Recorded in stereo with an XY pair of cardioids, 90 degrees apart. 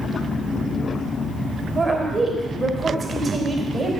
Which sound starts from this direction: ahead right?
A woman speaking, at 1.8 s.